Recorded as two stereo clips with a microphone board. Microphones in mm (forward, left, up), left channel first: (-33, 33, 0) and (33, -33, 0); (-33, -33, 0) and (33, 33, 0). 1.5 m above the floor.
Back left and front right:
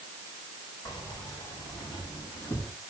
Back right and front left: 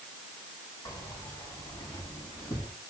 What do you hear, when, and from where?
0.8 s keys jangling: straight behind, 8 m; by 2.7 s 165° right, 8 m